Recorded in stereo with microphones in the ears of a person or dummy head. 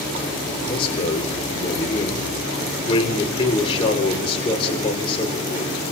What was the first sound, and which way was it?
A man speaking, 30° left (ahead or behind).